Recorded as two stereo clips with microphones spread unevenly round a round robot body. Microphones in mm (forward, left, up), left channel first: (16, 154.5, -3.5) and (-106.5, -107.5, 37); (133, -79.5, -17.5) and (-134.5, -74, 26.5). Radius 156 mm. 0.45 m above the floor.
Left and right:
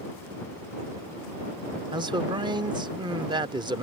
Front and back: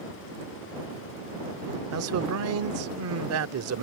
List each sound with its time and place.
1.9 s a man speaking: 165° left